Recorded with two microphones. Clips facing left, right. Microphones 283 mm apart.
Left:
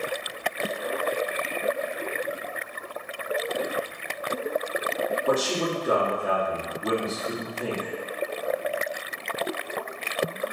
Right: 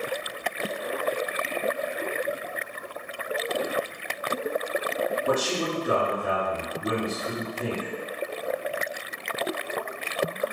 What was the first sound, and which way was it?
A man speaking, 30° right (ahead or behind).